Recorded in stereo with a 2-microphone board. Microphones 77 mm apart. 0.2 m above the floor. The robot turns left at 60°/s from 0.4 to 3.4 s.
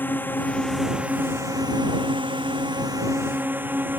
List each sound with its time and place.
0.0 s a drone: 25° left; by 4.0 s 155° right